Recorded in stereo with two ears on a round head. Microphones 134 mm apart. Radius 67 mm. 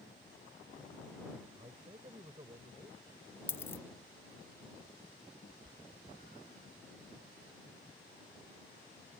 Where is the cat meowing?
45° left (ahead or behind).